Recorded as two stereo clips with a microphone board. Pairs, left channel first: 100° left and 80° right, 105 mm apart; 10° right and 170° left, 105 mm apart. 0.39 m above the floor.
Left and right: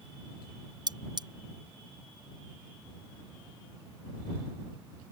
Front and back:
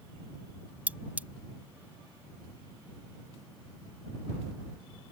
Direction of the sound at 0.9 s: 115° right.